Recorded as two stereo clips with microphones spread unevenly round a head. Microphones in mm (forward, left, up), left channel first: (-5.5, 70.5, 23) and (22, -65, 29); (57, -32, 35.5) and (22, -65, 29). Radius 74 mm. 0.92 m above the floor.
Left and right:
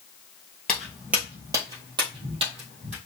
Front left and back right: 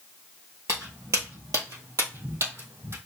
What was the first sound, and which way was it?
Footsteps, 175° right.